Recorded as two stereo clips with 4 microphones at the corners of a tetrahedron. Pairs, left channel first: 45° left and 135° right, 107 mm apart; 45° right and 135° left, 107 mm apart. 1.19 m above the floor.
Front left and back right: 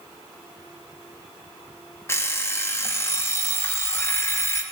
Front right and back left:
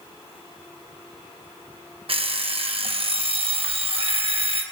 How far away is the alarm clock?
About 0.8 m.